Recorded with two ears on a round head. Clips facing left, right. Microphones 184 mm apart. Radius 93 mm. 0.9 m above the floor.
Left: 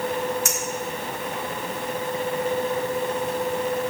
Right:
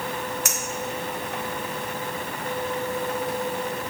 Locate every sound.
0.5 s a clink: 55° right (ahead or behind), 1.6 m